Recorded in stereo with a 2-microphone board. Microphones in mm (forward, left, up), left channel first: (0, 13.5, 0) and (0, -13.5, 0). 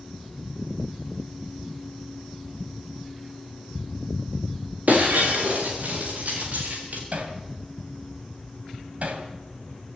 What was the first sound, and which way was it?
Breaking glass, 65° right (ahead or behind).